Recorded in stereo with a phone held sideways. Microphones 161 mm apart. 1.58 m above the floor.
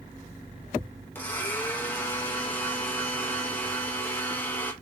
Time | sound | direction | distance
1.1 | a blender | 10° left (ahead or behind) | 0.9 m